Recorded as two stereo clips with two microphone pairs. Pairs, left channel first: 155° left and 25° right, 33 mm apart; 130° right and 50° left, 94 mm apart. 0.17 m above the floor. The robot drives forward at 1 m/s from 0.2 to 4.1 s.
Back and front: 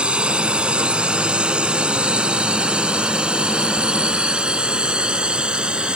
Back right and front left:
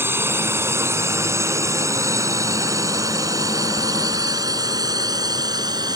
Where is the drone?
Straight ahead; by 6.0 s 25° left.